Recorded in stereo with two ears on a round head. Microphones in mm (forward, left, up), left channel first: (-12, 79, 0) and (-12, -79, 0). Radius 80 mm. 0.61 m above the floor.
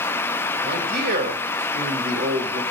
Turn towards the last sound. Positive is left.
turn(degrees=-45)  # may be behind; listen again after turning